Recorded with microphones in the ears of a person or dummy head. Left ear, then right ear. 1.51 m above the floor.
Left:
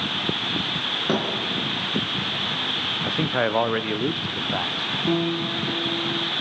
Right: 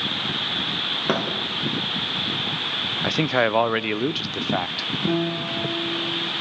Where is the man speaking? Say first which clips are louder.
Right 5 dB; 85° right, 0.6 m.